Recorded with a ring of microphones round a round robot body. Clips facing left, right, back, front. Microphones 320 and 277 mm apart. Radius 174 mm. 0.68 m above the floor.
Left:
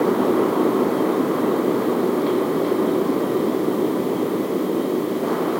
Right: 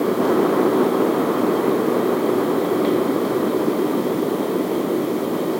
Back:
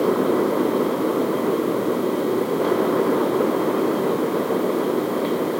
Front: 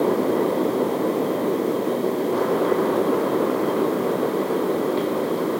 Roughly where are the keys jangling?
I don't hear keys jangling.